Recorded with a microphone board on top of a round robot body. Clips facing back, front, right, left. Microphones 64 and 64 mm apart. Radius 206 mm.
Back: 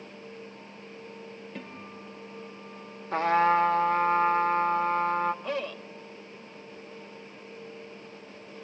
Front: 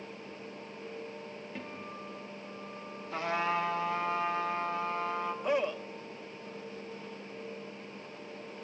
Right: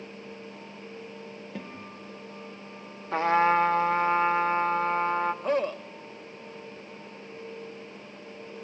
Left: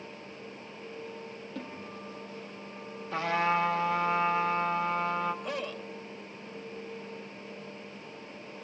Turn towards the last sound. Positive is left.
turn(degrees=-65)